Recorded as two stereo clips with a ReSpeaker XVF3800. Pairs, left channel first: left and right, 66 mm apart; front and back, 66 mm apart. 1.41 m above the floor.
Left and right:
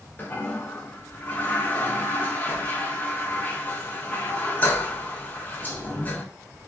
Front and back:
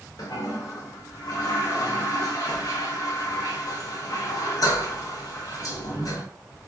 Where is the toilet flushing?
25° left, 0.7 m.